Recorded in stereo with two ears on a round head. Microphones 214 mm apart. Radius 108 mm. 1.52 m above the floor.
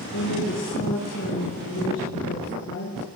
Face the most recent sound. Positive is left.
turn(degrees=65)  # may be behind; listen again after turning